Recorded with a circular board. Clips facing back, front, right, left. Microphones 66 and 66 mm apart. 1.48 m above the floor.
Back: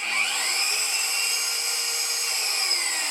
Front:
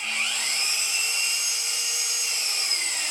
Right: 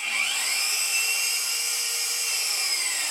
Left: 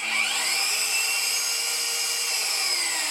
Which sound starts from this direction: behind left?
An engine running, at 0.0 s.